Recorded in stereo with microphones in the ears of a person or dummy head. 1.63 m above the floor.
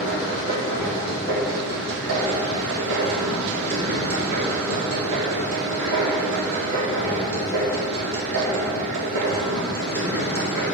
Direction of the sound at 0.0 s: 75° right (ahead or behind).